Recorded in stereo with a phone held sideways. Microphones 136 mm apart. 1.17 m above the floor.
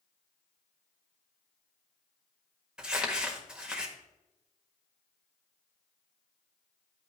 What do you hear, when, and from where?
2.8 s crumpling: 5° right (ahead or behind), 1.5 m